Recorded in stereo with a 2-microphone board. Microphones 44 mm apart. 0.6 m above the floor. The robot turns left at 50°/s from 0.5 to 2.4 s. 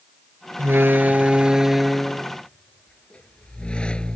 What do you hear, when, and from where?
0.6 s a door slam: 115° right; by 4.2 s 155° left